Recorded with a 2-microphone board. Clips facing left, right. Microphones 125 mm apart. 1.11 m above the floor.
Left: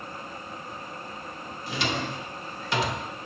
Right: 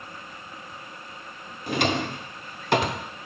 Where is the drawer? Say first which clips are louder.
Right 5 dB; 55° right (ahead or behind), 0.6 m.